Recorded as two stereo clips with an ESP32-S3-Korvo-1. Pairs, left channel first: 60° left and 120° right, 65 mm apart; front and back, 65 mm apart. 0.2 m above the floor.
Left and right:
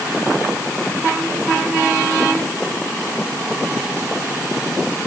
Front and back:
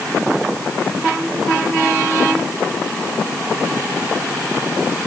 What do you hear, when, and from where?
Only background noise.